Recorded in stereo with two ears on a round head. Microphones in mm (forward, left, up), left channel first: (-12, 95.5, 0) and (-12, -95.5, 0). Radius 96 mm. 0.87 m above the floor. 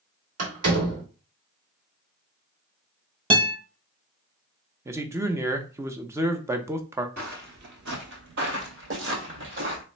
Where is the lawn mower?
I don't hear a lawn mower.